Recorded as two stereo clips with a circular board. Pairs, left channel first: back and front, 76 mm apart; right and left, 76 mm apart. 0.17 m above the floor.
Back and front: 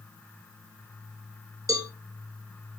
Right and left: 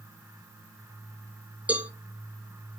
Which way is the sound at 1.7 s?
20° left.